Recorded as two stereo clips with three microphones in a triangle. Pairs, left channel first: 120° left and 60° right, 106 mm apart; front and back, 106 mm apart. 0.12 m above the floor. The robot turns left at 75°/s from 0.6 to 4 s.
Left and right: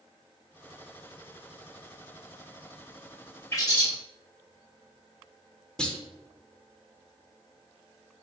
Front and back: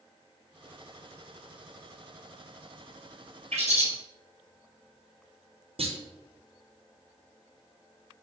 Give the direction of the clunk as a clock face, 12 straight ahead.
5 o'clock.